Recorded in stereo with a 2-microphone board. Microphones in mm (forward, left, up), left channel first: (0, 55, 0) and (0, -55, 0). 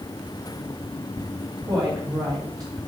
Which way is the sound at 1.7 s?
40° right (ahead or behind).